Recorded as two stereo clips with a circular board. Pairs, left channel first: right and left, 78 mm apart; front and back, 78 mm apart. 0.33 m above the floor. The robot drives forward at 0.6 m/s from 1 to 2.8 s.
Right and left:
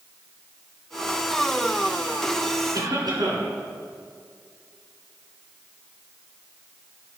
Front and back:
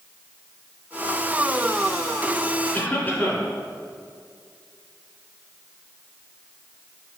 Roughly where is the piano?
No piano in this recording.